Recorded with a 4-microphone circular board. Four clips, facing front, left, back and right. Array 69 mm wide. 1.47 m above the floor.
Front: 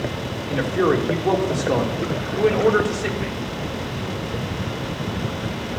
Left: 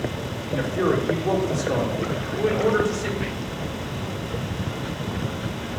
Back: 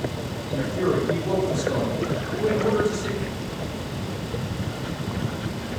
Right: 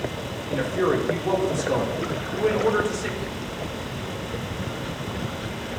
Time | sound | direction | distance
0.5 | a man speaking | 10° right | 3 m
3.2 | whispering | 55° left | 0.5 m